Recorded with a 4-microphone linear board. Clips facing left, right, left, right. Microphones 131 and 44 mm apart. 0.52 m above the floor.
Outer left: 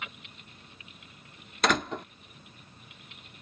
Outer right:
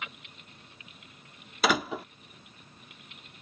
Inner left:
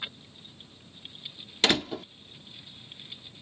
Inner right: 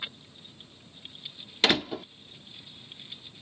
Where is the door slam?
5° right (ahead or behind).